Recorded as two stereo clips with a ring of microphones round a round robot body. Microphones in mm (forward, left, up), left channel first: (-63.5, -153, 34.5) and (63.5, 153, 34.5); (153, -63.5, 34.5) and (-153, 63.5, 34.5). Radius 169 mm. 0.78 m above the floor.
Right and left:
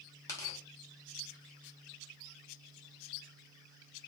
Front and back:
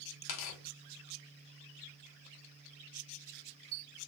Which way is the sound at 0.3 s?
30° right.